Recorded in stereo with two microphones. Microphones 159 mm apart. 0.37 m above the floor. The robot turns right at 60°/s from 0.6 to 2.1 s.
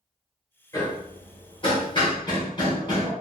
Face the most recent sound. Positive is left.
turn(degrees=30)  # may be behind; listen again after turning